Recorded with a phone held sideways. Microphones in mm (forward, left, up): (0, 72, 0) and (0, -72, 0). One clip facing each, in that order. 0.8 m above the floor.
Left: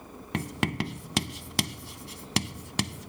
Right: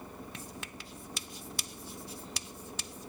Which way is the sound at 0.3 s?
85° left.